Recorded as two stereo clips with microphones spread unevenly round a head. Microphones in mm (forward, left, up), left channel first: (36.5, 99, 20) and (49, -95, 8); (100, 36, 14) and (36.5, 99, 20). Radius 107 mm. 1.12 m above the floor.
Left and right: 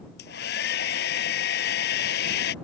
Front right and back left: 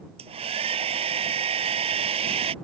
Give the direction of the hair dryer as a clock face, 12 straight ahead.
7 o'clock.